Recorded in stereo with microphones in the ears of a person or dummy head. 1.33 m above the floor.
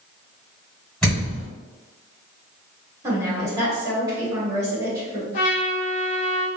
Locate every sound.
1.0 s a thud: 5° left (ahead or behind), 1.6 m
3.0 s a woman speaking: 20° right (ahead or behind), 1.1 m
5.3 s a trumpet: 30° left (ahead or behind), 0.8 m